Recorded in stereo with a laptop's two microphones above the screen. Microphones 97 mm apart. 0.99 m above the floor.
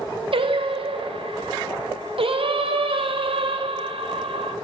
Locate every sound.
0.3 s singing: 65° right (ahead or behind), 0.5 m